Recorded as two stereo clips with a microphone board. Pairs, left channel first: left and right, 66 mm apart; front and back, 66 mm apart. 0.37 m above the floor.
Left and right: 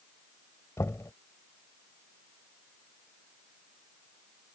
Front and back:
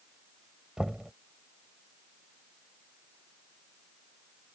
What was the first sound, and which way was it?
Knocking, 105° left.